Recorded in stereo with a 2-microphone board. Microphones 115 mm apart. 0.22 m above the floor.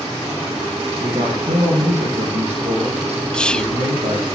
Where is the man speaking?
80° right, 8.5 m; by 4.3 s 70° right (ahead or behind), 8 m.